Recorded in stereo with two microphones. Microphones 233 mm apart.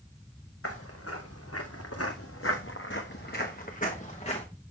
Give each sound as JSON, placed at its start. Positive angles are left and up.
{"t": 0.6, "sound": "footsteps", "side_deg": 70, "distance_m": 1.8}